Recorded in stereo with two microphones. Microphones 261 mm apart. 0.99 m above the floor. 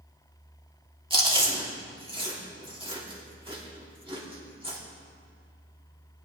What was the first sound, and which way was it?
Chewing, 20° right (ahead or behind).